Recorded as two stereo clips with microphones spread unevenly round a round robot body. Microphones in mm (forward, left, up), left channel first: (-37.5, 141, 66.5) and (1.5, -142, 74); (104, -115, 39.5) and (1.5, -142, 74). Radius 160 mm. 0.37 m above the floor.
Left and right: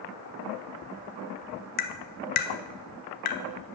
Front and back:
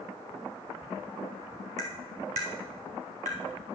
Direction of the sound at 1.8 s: 160° left.